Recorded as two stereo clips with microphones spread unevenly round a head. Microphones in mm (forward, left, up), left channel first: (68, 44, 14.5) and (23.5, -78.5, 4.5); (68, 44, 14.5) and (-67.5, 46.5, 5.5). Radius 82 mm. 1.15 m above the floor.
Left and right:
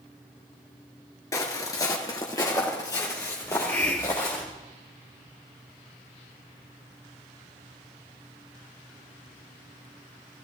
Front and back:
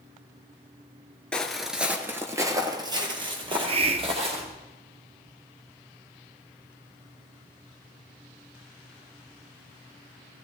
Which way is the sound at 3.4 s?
140° left.